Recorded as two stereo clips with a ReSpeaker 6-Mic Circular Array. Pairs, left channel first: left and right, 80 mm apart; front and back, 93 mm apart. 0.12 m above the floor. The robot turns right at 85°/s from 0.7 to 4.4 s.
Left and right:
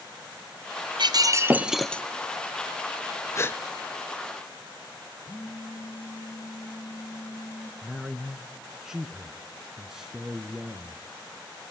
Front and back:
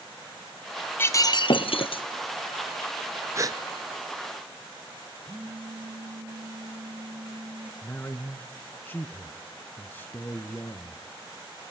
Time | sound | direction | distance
1.0 | breaking glass | 70° right | 1.0 m
3.4 | a gasp | 135° left | 0.7 m
5.3 | a phone buzzing | 140° left | 2.5 m
7.8 | a man speaking | 15° right | 1.1 m